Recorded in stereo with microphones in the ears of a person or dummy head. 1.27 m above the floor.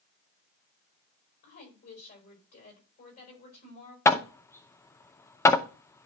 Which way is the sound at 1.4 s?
40° left (ahead or behind).